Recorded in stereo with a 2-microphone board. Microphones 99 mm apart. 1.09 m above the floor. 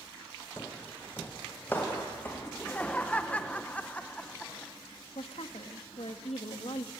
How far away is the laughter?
About 0.8 m.